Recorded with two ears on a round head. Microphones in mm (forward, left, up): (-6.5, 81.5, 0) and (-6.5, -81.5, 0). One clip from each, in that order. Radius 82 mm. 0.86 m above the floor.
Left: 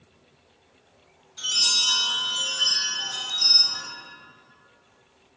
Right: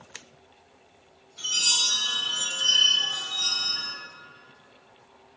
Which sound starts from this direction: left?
A chime, at 1.4 s.